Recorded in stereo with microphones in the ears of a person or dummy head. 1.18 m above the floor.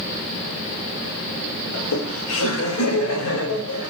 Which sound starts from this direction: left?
Laughter, at 1.7 s.